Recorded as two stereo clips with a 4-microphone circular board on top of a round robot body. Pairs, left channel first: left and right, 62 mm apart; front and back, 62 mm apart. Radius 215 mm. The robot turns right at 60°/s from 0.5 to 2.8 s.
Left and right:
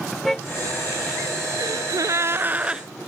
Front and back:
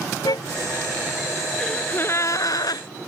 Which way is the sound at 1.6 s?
85° right.